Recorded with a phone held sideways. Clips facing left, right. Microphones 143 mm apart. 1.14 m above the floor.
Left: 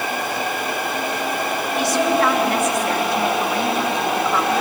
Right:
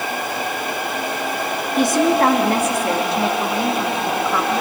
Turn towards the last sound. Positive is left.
turn(degrees=0)  # may be behind; listen again after turning